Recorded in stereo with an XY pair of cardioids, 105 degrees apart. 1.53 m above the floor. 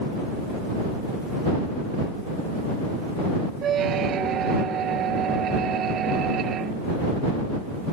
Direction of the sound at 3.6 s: 60° right.